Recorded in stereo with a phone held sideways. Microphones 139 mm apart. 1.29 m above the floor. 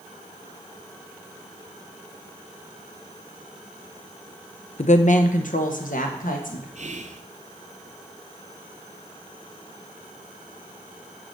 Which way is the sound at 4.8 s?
55° left (ahead or behind).